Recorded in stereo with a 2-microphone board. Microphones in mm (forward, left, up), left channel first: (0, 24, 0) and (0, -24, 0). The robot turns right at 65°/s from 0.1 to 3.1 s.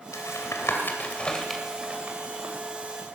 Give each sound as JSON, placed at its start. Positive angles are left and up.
{"t": 0.1, "sound": "tapping", "side_deg": 85, "distance_m": 2.0}